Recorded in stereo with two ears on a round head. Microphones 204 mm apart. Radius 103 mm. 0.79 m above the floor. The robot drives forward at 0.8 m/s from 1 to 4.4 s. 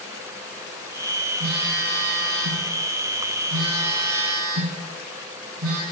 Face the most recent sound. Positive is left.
turn(degrees=-70)  # may be behind; listen again after turning